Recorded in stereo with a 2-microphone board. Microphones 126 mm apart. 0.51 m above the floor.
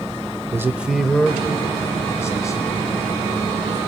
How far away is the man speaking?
About 1.1 m.